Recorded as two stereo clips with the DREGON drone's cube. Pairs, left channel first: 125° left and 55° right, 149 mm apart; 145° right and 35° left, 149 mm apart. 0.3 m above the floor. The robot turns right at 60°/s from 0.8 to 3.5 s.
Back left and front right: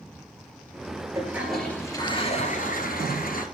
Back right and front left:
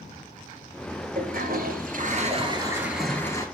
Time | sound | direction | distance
1.1 | a toilet flushing | 10° left | 2 m